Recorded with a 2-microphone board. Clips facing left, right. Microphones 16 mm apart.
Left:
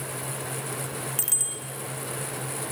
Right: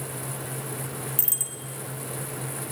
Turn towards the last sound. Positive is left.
turn(degrees=20)  # may be behind; listen again after turning